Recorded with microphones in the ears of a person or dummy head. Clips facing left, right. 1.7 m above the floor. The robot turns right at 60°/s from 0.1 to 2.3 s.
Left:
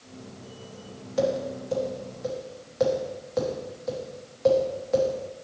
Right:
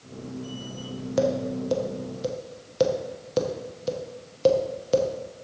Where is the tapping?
65° right (ahead or behind), 1.0 m; by 5.1 s 45° right (ahead or behind), 1.0 m.